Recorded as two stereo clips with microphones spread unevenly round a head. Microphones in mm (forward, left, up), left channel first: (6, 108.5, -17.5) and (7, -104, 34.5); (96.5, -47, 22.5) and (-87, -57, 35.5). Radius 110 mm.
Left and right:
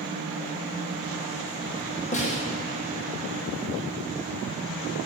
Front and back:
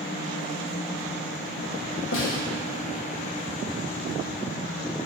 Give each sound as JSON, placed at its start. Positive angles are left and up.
{"t": 2.1, "sound": "a snare drum", "azimuth_deg": 30, "distance_m": 2.0}